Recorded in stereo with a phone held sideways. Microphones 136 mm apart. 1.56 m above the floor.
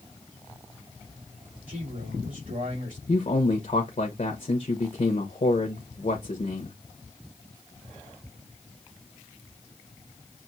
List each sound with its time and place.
1.7 s a man speaking: 80° right, 4 m
3.1 s a man speaking: 60° left (ahead or behind), 1.0 m